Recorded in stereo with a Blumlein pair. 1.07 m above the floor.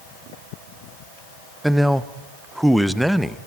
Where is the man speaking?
5° right, 0.7 m.